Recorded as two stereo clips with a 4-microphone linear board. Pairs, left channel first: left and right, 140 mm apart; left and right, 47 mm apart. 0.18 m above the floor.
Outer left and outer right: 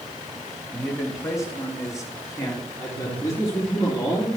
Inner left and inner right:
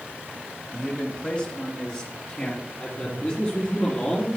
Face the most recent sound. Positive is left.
turn(degrees=25)  # may be behind; listen again after turning